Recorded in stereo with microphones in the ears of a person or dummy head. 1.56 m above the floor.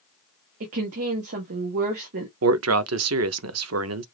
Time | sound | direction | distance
0.6 | a woman speaking | 45° right (ahead or behind) | 0.6 m
2.4 | a man speaking | 80° right | 0.5 m